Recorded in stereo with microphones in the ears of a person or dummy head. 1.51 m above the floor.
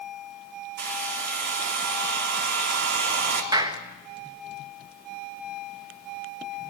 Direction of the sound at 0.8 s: 60° right (ahead or behind).